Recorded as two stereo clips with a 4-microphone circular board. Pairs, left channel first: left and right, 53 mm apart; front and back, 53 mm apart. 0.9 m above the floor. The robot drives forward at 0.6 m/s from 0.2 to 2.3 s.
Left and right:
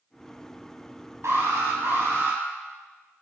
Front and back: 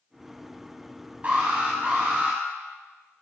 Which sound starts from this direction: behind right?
An alarm, at 1.2 s.